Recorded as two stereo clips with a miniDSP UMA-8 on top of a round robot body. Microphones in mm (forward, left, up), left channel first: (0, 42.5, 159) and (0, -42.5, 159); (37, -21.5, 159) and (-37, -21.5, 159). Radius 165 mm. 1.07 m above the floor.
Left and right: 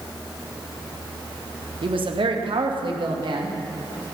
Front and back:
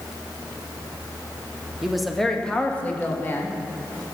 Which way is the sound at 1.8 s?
95° right.